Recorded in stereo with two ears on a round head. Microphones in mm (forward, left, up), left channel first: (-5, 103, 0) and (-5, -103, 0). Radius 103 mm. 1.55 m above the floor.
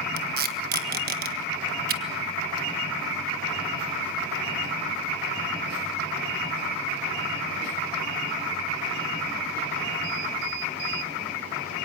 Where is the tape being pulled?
40° right (ahead or behind), 1.4 m.